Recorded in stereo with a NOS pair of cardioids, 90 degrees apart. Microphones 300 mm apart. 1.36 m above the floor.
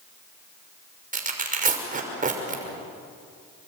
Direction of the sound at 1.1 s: 30° right.